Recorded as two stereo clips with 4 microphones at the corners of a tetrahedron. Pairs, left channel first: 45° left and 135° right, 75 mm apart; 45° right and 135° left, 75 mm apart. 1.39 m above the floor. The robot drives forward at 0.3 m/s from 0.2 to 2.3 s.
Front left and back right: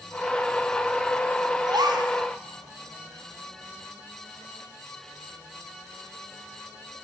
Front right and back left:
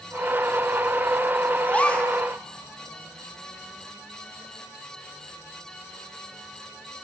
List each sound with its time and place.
1.7 s a gasp: 115° right, 1.6 m; by 2.1 s 120° right, 1.7 m